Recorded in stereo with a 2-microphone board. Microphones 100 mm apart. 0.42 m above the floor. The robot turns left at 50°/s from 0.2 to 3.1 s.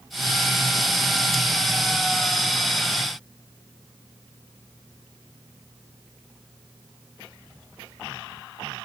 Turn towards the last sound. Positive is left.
No sound to turn to.